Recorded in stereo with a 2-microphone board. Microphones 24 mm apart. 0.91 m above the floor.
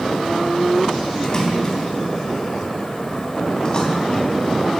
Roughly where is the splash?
Left.